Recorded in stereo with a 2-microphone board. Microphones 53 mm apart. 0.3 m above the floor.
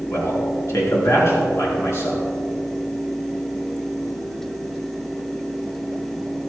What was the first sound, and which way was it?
A man speaking, 60° left (ahead or behind).